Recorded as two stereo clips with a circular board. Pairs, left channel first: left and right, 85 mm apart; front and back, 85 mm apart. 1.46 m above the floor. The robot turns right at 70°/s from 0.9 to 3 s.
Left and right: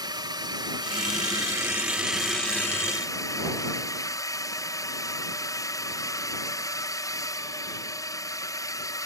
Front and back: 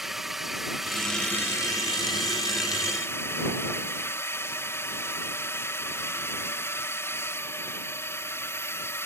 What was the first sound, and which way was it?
A drone, 95° right.